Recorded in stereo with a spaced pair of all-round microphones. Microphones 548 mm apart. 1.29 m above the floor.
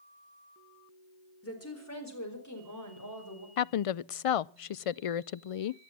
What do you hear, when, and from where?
1.4 s a woman speaking: 25° left (ahead or behind), 4 m; by 3.5 s 35° left (ahead or behind), 6 m
3.6 s a woman speaking: 75° left (ahead or behind), 0.5 m